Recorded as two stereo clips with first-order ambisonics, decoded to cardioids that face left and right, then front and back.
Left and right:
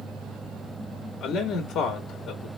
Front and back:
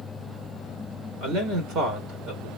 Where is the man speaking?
140° left, 1.9 m.